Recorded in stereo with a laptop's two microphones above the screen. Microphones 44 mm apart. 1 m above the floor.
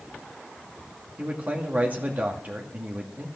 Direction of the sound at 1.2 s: 35° right (ahead or behind).